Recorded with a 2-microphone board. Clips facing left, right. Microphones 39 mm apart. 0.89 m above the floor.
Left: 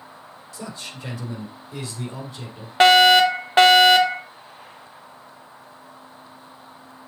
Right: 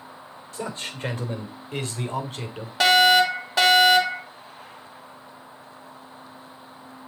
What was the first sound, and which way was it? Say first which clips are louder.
A man speaking: right 4 dB; 40° right (ahead or behind).